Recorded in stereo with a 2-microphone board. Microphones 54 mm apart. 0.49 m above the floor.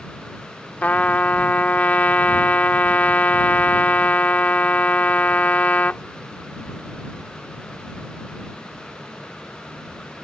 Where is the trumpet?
30° left (ahead or behind).